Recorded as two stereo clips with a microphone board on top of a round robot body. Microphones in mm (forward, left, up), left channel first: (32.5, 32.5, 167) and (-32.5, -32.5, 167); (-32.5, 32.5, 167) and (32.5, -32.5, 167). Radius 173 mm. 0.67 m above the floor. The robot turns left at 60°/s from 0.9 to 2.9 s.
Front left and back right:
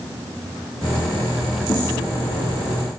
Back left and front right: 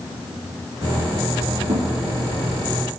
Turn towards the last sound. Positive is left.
turn(degrees=-85)